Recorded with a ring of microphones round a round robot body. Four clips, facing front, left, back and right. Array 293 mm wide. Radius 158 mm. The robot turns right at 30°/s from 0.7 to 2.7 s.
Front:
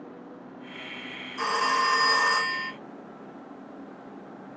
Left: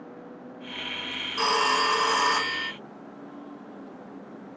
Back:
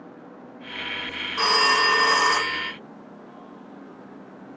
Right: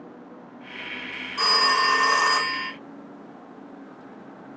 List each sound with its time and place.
1.4 s a phone ringing: 170° left, 1.0 m; by 2.7 s 150° right, 1.0 m